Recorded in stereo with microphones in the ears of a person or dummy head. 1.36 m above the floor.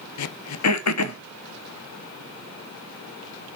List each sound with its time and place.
0.2 s throat clearing: 85° left, 0.8 m